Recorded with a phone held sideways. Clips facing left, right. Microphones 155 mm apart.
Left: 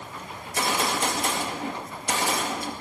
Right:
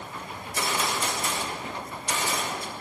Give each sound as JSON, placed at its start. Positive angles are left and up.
{"t": 0.4, "sound": "a gunshot", "side_deg": 65, "distance_m": 2.0}